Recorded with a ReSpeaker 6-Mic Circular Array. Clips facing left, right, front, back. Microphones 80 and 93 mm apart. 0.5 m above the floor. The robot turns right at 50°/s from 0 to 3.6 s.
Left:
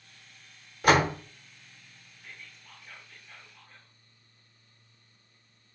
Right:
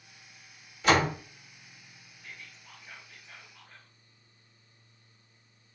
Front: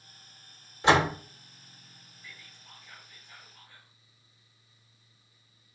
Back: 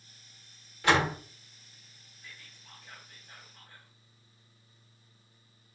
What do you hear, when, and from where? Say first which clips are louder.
0.8 s a door slam: left 2 dB, front 3 dB; 60° left, 0.7 m; by 1.2 s 80° left, 0.7 m
2.2 s whispering: right 1 dB, front 1 dB; 155° left, 1.6 m; by 3.9 s 135° right, 1.6 m